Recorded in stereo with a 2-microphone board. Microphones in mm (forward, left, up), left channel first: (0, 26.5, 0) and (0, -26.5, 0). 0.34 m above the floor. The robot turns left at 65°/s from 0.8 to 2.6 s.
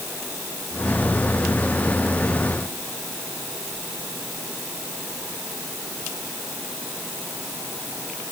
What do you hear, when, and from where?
Only background noise.